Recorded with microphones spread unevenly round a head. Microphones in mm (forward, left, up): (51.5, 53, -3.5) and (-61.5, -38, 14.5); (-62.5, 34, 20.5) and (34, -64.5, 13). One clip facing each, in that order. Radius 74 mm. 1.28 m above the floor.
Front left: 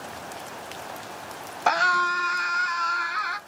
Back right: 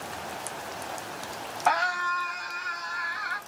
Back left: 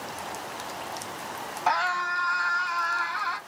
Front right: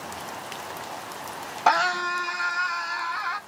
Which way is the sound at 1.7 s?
5° right.